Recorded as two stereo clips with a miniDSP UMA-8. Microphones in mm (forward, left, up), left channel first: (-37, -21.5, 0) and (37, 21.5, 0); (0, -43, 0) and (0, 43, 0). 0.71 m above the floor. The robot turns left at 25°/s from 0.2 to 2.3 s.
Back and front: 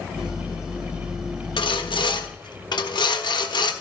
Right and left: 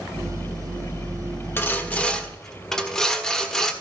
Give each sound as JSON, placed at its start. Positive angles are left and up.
{"t": 1.6, "sound": "sawing", "azimuth_deg": -155, "distance_m": 1.1}